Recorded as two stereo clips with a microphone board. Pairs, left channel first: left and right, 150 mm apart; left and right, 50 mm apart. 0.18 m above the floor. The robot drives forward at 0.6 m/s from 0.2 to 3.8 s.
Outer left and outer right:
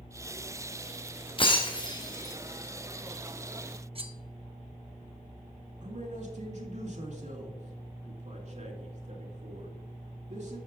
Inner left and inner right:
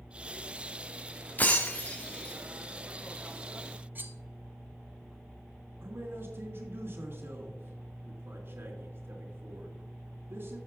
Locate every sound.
1.4 s breaking glass: 35° left (ahead or behind), 1.3 m; by 2.4 s 25° left (ahead or behind), 1.8 m
4.0 s cutlery clinking: 40° right (ahead or behind), 0.9 m
5.8 s a man speaking: 50° right (ahead or behind), 2.5 m